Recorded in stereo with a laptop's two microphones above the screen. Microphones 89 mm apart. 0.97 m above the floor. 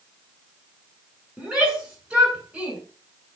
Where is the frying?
I don't hear frying.